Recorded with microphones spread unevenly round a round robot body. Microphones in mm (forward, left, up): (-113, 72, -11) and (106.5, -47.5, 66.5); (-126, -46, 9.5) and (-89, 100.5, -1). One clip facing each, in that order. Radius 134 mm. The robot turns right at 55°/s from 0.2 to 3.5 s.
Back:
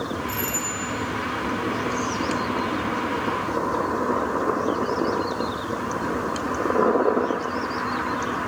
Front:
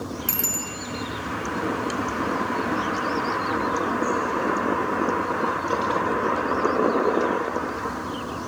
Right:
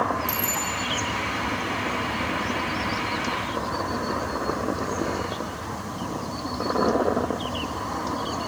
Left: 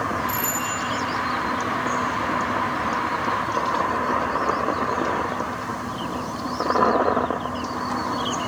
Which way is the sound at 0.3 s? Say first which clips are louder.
Back 3 dB, left 2 dB; 60° right.